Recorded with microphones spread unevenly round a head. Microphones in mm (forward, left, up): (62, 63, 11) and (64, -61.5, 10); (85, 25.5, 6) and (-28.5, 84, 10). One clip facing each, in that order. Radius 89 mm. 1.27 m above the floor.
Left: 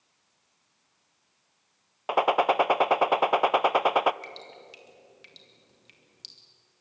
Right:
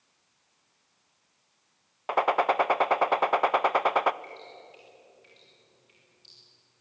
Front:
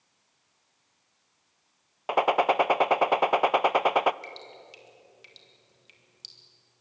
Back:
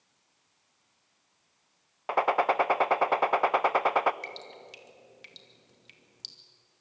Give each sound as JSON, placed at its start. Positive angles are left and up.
{"t": 2.1, "sound": "a gunshot", "azimuth_deg": 25, "distance_m": 0.5}
{"t": 4.2, "sound": "dripping", "azimuth_deg": 125, "distance_m": 2.5}